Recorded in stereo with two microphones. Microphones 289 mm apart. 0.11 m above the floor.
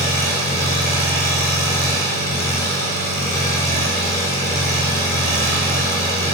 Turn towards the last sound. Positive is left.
turn(degrees=10)  # may be behind; listen again after turning